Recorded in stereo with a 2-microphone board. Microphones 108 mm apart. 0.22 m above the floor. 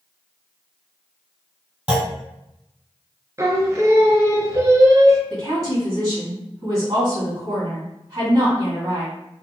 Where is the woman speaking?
30° right (ahead or behind), 1.9 m.